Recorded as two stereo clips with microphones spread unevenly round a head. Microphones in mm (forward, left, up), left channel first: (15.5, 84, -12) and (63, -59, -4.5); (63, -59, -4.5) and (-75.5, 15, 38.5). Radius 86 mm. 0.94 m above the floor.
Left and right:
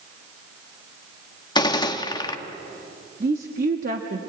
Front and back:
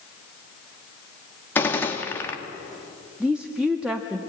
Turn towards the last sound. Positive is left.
turn(degrees=-120)